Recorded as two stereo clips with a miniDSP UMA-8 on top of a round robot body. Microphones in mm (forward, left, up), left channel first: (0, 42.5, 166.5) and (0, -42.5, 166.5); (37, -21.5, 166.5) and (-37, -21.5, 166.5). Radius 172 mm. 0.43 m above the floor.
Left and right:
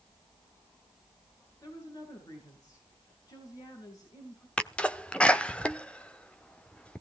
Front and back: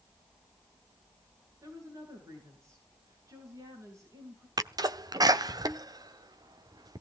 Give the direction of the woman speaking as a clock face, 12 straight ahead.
8 o'clock.